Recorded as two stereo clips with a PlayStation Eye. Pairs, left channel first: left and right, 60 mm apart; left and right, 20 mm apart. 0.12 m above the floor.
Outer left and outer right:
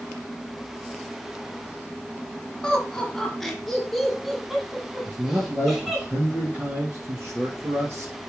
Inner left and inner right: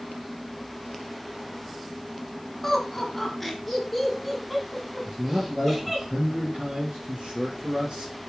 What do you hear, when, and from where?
2.6 s laughter: 10° left (ahead or behind), 2.5 m; by 6.0 s 10° right (ahead or behind), 6.5 m
5.0 s a man speaking: 35° right (ahead or behind), 2.5 m